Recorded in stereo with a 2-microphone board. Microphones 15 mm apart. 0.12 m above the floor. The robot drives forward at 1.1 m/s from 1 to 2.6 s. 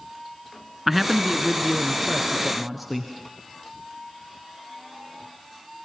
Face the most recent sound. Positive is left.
turn(degrees=-5)  # may be behind; listen again after turning